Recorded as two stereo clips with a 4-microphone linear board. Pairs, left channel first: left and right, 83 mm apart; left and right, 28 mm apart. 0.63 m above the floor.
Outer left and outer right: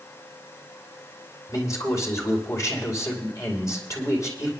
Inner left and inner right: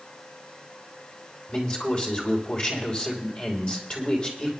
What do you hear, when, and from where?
1.5 s a man speaking: 40° left (ahead or behind), 3 m